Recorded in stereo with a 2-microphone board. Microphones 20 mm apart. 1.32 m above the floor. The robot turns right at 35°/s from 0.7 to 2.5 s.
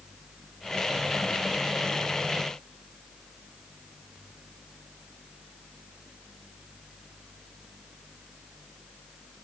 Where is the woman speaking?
I don't hear a woman speaking.